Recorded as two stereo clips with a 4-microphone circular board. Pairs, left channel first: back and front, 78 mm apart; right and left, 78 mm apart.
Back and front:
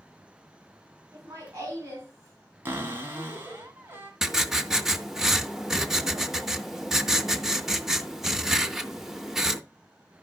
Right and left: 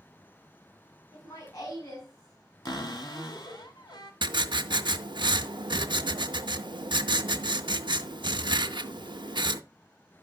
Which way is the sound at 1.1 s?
55° right.